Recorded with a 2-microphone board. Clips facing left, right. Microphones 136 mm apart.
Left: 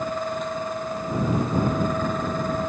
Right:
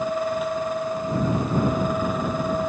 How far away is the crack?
I don't hear a crack.